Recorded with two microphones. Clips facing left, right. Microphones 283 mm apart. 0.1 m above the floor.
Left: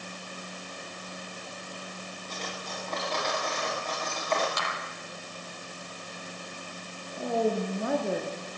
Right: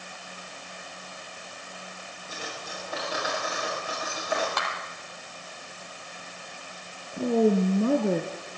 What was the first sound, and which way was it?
Cutlery clinking, 10° right (ahead or behind).